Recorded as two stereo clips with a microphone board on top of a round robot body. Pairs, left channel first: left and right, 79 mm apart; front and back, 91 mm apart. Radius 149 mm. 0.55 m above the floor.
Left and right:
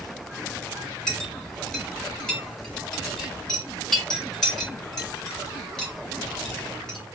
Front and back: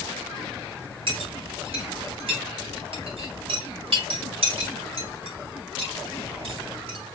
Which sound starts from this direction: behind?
A clink, at 1.1 s.